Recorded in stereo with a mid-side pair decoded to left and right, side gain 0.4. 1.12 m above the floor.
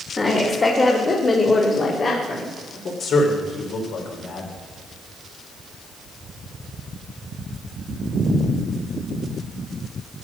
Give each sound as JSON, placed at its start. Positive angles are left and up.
{"t": 0.2, "sound": "a woman speaking", "azimuth_deg": 40, "distance_m": 2.5}
{"t": 3.0, "sound": "a man speaking", "azimuth_deg": 65, "distance_m": 4.0}